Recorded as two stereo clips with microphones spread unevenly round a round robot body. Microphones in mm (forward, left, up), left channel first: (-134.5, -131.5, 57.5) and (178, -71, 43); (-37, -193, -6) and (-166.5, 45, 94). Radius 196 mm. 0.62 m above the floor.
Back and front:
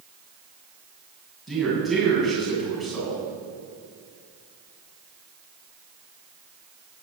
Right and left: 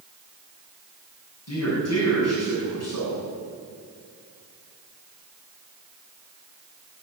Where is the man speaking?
80° right, 6.5 m.